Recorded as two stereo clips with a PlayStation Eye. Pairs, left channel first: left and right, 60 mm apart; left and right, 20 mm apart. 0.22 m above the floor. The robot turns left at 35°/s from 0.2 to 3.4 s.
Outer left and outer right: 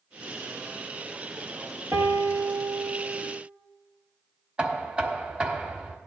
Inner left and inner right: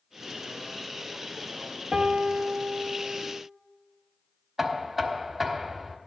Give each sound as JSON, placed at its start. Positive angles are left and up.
{"t": 1.9, "sound": "a piano", "azimuth_deg": -70, "distance_m": 1.0}
{"t": 4.6, "sound": "knocking", "side_deg": -20, "distance_m": 1.0}